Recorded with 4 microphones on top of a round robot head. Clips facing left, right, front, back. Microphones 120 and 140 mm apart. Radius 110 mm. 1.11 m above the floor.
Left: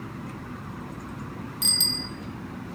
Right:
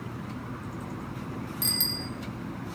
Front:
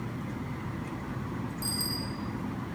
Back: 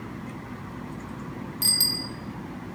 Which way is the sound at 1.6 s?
175° left.